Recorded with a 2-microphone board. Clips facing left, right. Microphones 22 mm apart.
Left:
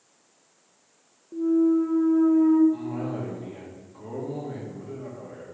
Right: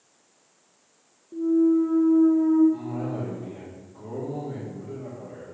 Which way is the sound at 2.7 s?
55° left (ahead or behind).